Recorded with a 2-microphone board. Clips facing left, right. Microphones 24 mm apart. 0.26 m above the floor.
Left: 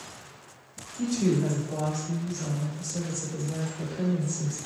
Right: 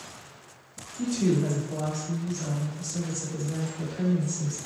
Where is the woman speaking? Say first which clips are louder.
Even; 20° left (ahead or behind), 1.6 m; by 4.6 s 40° right (ahead or behind), 2.0 m.